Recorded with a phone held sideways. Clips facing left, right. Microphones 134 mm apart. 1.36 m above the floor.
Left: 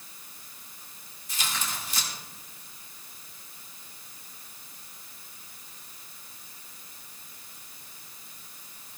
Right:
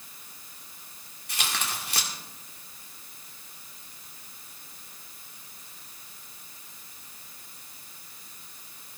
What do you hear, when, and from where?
1.3 s tearing paper: 65° right (ahead or behind), 1.8 m